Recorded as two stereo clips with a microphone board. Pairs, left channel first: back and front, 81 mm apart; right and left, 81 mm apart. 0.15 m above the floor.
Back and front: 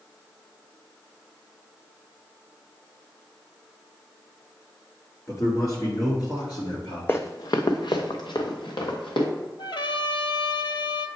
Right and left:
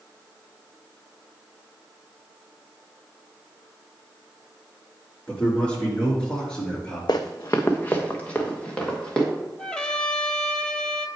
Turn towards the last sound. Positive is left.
turn(degrees=-170)